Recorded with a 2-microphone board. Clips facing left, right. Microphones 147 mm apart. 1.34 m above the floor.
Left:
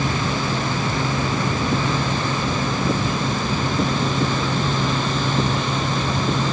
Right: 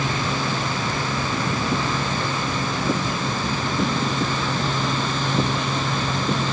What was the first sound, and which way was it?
Only background noise.